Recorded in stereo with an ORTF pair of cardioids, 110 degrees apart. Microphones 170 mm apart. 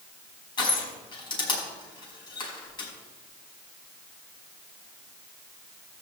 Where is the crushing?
30° left, 5 m.